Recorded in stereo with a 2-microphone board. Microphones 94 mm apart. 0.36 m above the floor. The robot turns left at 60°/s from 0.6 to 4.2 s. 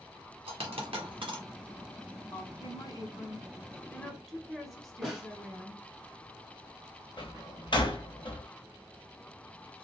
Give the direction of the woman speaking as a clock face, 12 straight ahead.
8 o'clock.